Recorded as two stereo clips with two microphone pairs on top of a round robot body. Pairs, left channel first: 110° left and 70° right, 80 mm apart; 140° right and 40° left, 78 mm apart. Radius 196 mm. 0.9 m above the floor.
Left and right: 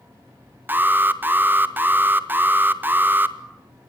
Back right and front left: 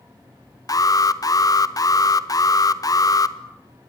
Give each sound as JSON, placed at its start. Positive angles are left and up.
{"t": 0.7, "sound": "an alarm", "azimuth_deg": -125, "distance_m": 1.8}